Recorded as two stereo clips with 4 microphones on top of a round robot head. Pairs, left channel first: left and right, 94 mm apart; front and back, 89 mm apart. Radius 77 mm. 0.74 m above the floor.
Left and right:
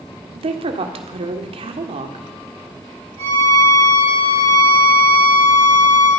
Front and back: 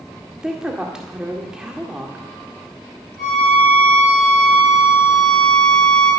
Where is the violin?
85° right, 6.5 m.